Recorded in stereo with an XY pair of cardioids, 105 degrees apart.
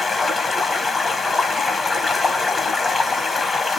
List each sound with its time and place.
0.0 s running water: 35° left, 1.3 m